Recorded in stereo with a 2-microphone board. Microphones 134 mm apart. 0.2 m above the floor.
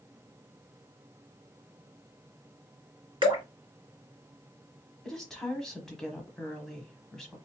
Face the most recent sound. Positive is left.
turn(degrees=5)  # may be behind; listen again after turning